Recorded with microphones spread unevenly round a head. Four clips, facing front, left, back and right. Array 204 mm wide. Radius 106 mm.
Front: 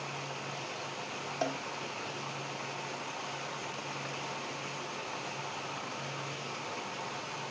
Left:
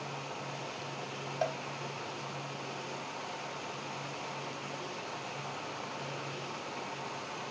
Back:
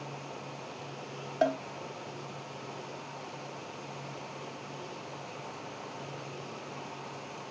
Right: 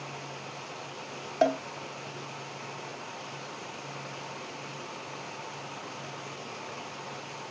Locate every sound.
1.4 s a cowbell: 115° right